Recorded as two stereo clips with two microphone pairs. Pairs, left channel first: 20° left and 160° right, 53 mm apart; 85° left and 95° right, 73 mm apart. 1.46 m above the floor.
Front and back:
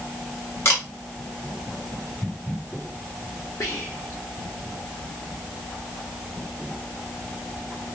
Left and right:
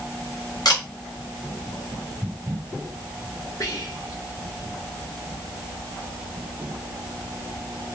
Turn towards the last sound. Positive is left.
turn(degrees=40)